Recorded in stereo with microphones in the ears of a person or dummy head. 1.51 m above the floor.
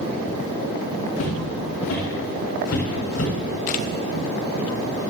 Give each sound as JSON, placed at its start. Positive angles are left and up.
{"t": 1.2, "sound": "footsteps", "side_deg": 60, "distance_m": 4.0}
{"t": 3.7, "sound": "a camera shutter", "side_deg": 45, "distance_m": 0.7}